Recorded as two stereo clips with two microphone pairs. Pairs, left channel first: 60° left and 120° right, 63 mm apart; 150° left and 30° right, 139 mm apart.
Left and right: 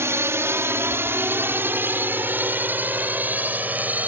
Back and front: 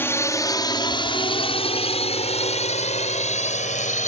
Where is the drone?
140° right; by 4.1 s straight behind.